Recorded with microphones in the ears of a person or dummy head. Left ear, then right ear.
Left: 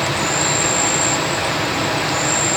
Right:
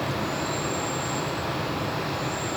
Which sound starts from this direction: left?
An insect, at 0.0 s.